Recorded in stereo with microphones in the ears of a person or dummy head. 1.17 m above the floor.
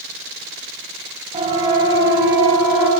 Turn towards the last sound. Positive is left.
turn(degrees=-15)  # may be behind; listen again after turning